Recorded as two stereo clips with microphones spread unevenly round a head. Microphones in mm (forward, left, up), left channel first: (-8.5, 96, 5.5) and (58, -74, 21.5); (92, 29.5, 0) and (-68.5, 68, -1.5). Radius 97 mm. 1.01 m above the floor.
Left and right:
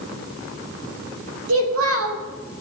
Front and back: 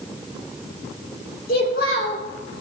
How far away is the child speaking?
About 2.5 m.